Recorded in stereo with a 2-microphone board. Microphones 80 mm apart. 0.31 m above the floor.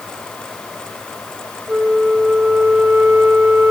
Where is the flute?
20° right (ahead or behind), 1.2 m.